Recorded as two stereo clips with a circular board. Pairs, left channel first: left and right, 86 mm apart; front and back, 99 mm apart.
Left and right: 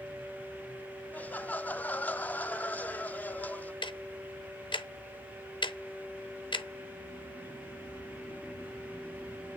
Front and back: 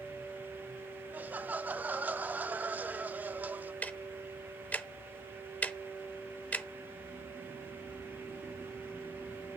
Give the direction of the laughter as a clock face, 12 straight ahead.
8 o'clock.